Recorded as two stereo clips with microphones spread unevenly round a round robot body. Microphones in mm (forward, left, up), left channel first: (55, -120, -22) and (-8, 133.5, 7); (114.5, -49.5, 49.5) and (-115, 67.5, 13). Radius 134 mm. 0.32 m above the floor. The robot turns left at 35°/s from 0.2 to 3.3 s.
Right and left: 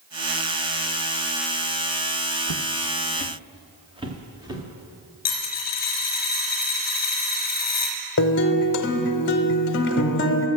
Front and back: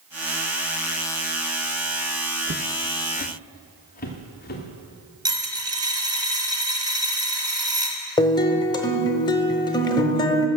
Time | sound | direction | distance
2.5 | footsteps | 95° left | 0.8 m
5.2 | a dropped coin | 135° right | 1.5 m
8.2 | a guitar | 105° right | 0.8 m